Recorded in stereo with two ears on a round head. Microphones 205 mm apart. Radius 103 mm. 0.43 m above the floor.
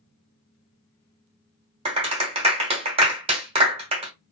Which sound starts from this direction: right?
A clap, at 1.9 s.